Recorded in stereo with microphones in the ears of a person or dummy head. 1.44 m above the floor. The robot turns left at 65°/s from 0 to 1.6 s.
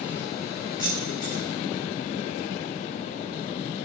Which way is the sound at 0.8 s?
20° left (ahead or behind).